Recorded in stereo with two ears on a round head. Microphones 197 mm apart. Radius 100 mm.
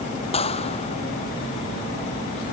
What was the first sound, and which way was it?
A clap, 25° left (ahead or behind).